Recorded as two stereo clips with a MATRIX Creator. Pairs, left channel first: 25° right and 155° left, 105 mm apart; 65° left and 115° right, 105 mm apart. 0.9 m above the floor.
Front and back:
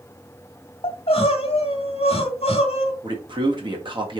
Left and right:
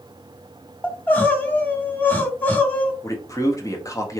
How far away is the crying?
About 1.2 m.